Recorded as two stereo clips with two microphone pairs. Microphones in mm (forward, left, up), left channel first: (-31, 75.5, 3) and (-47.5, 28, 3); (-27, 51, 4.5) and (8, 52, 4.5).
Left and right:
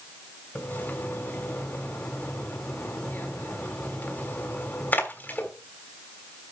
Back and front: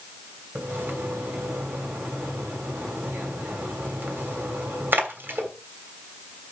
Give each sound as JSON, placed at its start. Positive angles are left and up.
{"t": 0.6, "sound": "a splash", "azimuth_deg": 25, "distance_m": 3.0}